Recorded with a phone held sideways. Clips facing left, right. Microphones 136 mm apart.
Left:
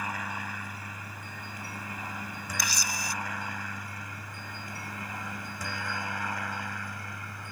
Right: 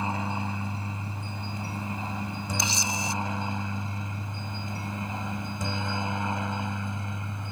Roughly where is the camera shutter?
Right.